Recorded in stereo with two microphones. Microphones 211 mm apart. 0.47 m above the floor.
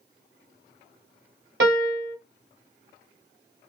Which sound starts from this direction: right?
A piano, at 1.6 s.